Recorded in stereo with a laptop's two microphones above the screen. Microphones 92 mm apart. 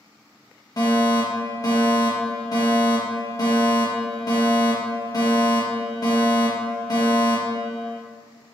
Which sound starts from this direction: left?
A fire alarm, at 0.8 s.